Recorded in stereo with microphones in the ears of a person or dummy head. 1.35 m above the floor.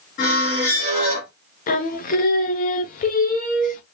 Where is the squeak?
40° left (ahead or behind), 1.6 m.